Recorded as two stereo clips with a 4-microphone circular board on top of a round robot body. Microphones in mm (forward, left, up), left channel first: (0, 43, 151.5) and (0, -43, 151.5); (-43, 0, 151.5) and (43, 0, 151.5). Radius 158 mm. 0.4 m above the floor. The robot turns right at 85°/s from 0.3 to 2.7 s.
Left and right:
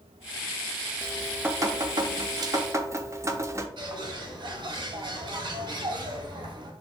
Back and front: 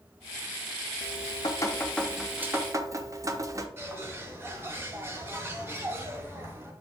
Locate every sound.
1.0 s dripping: 175° left, 1.0 m; by 3.7 s 45° right, 1.0 m
3.8 s a bird: 65° right, 1.6 m